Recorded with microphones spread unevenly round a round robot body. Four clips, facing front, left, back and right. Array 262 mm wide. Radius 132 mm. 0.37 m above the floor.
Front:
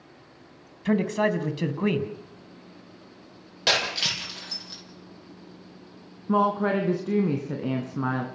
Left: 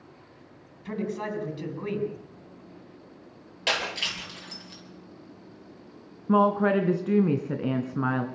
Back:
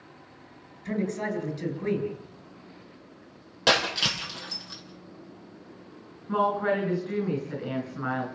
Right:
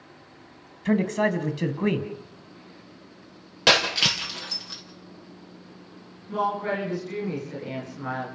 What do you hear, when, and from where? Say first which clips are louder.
0.8 s a man speaking: right 8 dB, front 6 dB; 45° right, 3.5 m
3.7 s breaking glass: right 7 dB, back 3 dB; 105° right, 5.5 m
6.3 s a woman speaking: left 5 dB, front 2 dB; 55° left, 3.5 m